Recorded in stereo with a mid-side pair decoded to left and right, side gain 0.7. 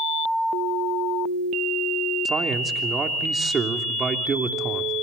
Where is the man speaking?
25° right, 3 m.